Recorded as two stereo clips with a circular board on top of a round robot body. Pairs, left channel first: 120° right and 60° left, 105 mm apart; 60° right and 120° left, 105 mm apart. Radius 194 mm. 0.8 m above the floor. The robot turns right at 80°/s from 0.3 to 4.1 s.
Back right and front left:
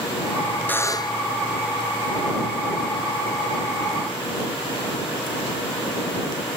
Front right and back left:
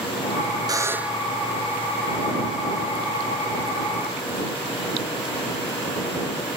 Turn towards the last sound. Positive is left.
turn(degrees=80)